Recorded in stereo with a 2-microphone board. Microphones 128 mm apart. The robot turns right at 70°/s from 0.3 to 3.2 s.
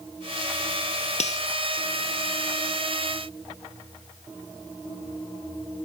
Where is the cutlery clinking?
60° left (ahead or behind), 1.7 m; by 1.4 s 65° left (ahead or behind), 1.7 m.